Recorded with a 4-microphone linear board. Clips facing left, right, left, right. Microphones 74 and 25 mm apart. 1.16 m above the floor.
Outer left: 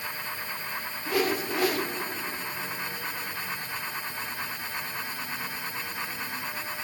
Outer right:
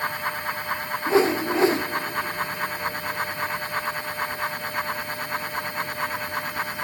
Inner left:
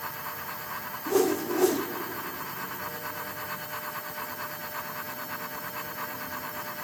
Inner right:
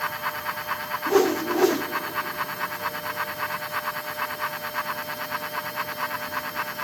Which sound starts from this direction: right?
A whoosh, at 1.1 s.